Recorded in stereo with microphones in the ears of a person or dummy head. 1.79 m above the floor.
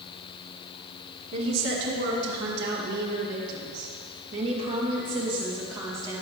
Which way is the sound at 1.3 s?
70° right (ahead or behind).